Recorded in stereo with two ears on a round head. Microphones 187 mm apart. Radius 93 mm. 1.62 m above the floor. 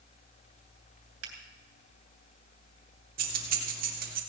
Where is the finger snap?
75° right (ahead or behind), 3 m.